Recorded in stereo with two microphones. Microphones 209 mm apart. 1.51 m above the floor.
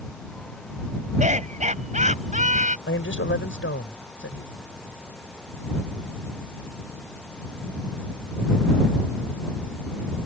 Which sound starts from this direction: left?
A man speaking, at 2.9 s.